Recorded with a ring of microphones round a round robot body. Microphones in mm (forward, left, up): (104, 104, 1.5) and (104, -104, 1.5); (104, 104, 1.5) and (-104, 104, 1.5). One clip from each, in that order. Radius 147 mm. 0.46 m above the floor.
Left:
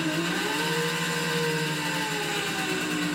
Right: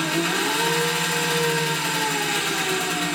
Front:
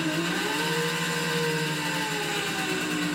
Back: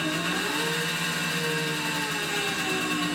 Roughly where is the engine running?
Right.